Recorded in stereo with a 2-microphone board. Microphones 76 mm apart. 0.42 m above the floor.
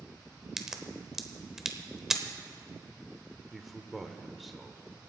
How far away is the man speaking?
About 1.0 m.